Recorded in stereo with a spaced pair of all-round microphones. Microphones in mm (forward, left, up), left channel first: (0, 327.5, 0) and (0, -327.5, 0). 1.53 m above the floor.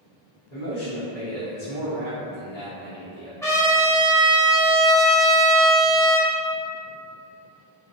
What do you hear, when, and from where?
0.5 s a man speaking: 75° left (ahead or behind), 1.3 m
3.4 s a trumpet: 5° left (ahead or behind), 0.7 m